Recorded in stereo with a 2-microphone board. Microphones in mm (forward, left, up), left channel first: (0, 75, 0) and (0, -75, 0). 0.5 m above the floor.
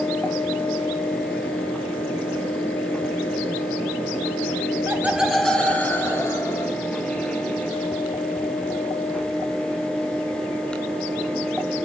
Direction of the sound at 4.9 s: 15° right (ahead or behind).